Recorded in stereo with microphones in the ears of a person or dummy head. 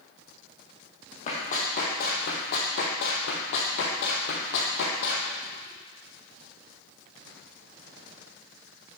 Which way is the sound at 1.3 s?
45° left (ahead or behind).